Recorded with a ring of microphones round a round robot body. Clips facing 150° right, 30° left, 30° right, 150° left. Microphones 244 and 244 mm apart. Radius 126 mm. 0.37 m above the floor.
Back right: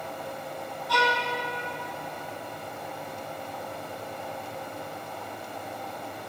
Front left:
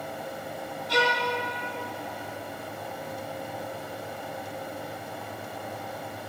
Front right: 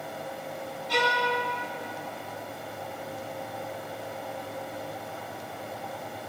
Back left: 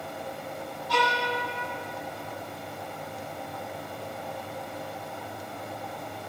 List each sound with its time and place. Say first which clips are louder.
0.9 s a violin: front left 2 dB, even; 10° left, 1.3 m